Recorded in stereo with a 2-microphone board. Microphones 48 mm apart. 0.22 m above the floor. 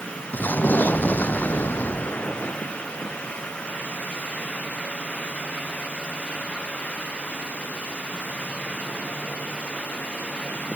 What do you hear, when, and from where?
0.3 s an explosion: 40° left (ahead or behind)